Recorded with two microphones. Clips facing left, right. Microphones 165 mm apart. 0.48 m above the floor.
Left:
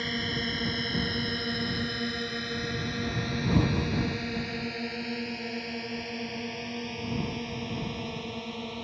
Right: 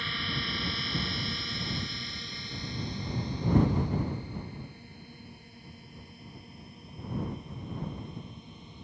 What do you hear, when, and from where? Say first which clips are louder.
0.0 s a drone: left 6 dB; 40° left (ahead or behind); by 8.8 s 75° left (ahead or behind)